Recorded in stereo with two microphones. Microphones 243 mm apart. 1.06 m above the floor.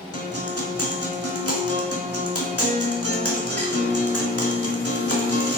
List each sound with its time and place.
0.1 s a guitar: 80° left, 1.9 m